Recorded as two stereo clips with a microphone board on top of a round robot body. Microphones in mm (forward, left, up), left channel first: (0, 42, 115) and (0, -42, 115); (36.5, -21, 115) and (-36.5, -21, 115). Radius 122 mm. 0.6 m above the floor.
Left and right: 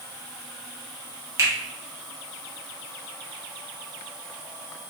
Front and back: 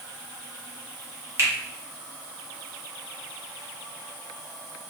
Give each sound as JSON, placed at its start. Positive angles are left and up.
{"t": 1.4, "sound": "a finger snap", "azimuth_deg": -135, "distance_m": 1.7}